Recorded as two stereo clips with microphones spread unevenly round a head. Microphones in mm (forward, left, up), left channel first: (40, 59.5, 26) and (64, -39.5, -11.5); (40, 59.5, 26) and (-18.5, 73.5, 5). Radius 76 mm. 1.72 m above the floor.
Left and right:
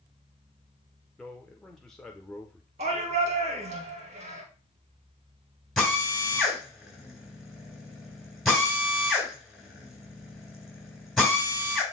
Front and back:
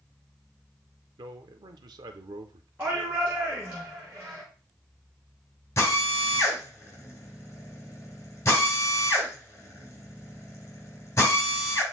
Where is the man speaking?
170° left, 0.8 m.